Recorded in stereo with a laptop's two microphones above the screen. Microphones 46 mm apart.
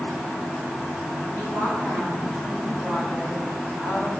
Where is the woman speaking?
45° left (ahead or behind), 6 m; by 4.1 s 30° left (ahead or behind), 4.5 m.